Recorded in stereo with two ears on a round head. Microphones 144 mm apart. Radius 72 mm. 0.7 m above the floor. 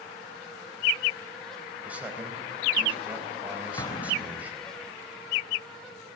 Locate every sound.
1.9 s a man speaking: 10° right (ahead or behind), 4 m
3.8 s an explosion: 25° left (ahead or behind), 1.1 m